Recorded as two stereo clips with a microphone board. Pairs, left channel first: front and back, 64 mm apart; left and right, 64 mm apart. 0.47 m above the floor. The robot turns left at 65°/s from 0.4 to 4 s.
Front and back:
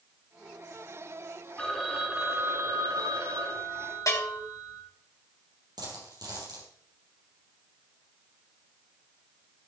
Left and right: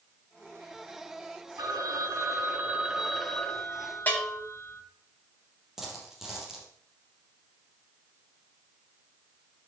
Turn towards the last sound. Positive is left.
turn(degrees=-170)